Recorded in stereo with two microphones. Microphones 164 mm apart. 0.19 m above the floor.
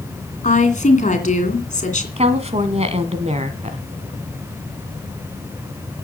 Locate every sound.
0.4 s a woman speaking: 50° left (ahead or behind), 2.5 m
2.2 s a woman speaking: 45° right (ahead or behind), 1.5 m